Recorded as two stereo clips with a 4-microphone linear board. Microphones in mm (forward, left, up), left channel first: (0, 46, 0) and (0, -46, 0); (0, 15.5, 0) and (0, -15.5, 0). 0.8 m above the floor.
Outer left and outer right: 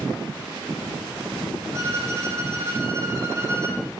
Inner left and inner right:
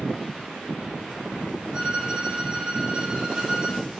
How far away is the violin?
About 3.5 m.